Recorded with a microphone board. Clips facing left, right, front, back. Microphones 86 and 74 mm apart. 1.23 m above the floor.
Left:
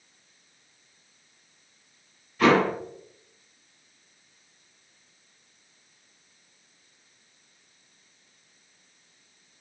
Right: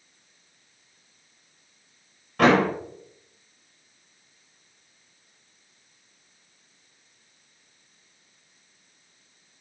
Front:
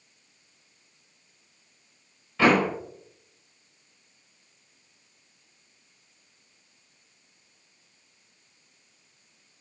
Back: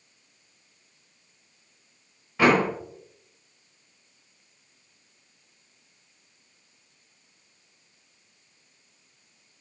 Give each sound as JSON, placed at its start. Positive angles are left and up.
{"t": 2.4, "sound": "a door slam", "azimuth_deg": -110, "distance_m": 5.5}